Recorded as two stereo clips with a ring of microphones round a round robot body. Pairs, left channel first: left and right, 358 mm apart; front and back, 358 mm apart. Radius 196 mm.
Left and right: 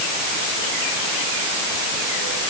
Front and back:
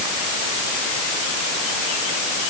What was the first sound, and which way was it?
Only background noise.